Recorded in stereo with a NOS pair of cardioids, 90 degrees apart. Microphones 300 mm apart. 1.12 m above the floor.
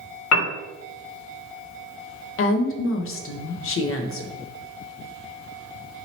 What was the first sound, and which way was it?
A piano, 60° left.